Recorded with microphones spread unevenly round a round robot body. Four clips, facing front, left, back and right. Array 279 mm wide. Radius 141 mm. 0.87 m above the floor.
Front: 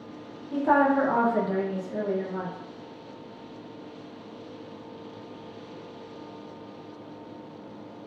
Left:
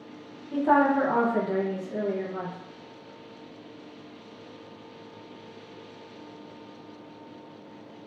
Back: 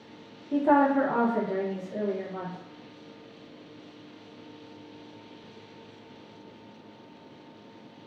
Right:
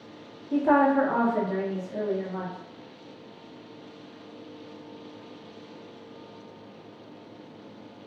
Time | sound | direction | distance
0.5 | a woman speaking | 140° right | 0.6 m